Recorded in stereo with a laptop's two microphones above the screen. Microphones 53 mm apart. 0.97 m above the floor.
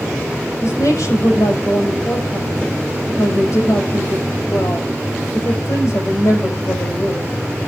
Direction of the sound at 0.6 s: 75° left (ahead or behind).